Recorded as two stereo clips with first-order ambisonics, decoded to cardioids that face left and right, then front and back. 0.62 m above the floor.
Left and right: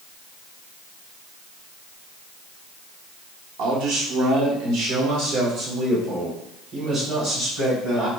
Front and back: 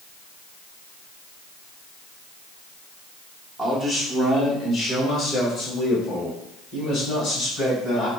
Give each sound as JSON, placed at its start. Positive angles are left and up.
{"t": 3.6, "sound": "a man speaking", "azimuth_deg": -100, "distance_m": 1.1}